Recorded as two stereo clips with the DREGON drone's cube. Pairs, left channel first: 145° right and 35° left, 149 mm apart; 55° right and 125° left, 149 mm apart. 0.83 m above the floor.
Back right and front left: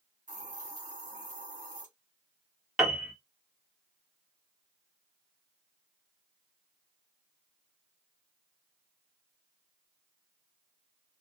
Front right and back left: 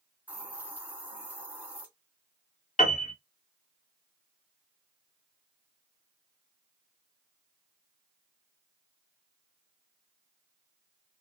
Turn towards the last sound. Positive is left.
turn(degrees=-55)